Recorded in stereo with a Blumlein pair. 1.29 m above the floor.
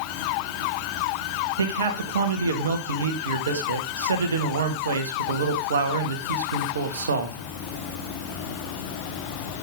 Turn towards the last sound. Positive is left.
turn(degrees=-65)